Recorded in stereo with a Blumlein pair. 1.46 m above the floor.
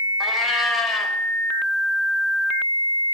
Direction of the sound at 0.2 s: 15° left.